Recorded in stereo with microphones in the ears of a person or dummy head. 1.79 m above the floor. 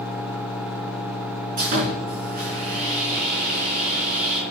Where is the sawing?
45° right (ahead or behind), 4 m.